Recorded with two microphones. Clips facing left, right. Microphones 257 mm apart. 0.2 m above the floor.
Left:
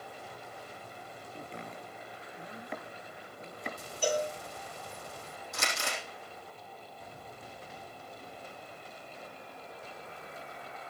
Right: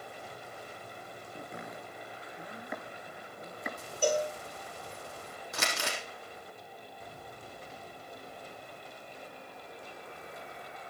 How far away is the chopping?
About 3 m.